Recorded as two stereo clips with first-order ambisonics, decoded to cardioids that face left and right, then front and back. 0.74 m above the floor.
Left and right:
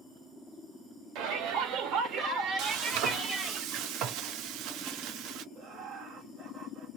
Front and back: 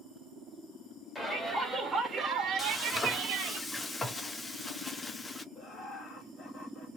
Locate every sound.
1.1 s a shout: 75° right, 1.3 m; by 3.6 s 175° right, 1.2 m
2.6 s frying: 75° right, 0.5 m
5.5 s laughter: 50° right, 1.1 m